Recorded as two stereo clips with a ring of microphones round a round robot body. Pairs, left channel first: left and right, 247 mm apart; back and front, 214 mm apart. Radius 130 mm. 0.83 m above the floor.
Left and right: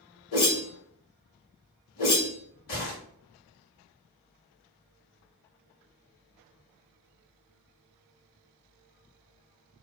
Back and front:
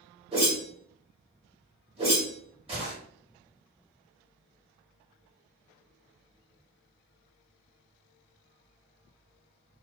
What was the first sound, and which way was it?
A whoosh, 65° left.